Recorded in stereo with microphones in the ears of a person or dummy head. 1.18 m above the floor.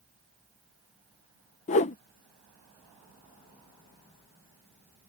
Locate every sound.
1.7 s a whoosh: 35° left (ahead or behind)